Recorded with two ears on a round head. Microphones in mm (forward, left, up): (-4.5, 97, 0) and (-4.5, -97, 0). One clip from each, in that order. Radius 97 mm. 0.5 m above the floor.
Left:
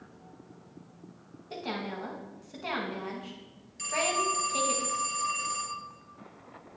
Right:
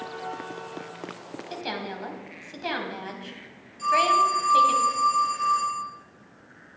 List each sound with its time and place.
1.5 s a woman speaking: 65° right (ahead or behind), 3 m
3.8 s a phone ringing: 30° left (ahead or behind), 5.5 m